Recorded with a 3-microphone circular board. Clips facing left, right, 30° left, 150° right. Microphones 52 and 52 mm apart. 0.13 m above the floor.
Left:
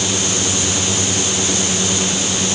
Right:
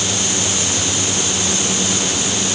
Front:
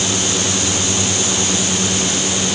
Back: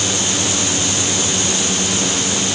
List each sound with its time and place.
Only background noise.